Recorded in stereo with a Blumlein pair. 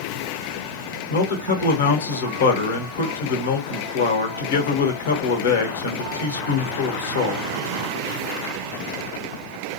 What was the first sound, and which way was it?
A man speaking, 65° left.